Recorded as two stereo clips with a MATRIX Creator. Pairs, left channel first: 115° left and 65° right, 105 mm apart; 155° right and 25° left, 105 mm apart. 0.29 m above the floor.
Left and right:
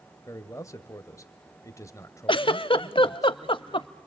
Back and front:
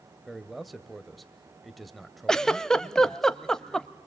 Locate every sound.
0.3 s a man speaking: 115° left, 1.0 m
2.3 s a giggle: 120° left, 0.6 m